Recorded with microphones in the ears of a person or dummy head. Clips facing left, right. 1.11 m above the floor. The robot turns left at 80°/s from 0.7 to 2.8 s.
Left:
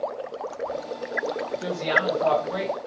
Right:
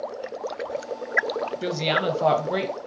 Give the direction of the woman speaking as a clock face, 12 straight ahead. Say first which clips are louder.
Right 1 dB; 1 o'clock.